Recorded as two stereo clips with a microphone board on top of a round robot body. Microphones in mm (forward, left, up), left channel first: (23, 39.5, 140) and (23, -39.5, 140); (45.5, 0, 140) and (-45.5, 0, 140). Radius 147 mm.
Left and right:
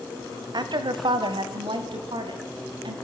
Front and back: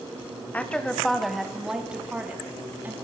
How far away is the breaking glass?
I don't hear breaking glass.